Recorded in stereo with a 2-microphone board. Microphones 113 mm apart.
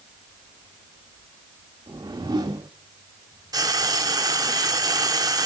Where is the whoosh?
35° right (ahead or behind), 1.1 m.